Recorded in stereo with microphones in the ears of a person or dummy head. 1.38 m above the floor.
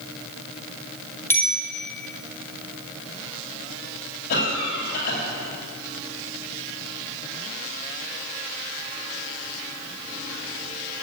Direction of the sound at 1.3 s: 10° left (ahead or behind).